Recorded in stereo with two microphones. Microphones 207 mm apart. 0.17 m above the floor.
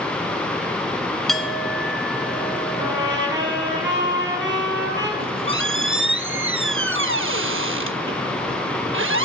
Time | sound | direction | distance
1.3 | a clink | centre (ahead or behind) | 1.1 m
2.8 | a trumpet | 60° right (ahead or behind) | 5 m
5.2 | a squeak | 75° right (ahead or behind) | 0.6 m